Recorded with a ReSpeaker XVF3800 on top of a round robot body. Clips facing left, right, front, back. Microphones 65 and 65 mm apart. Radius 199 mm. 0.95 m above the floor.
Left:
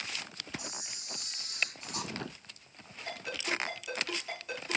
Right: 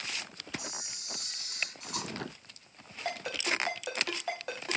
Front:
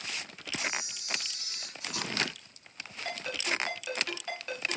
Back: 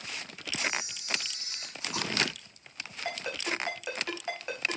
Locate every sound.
0.6 s a camera shutter: 115° right, 6 m
3.0 s a ringtone: 110° right, 3.5 m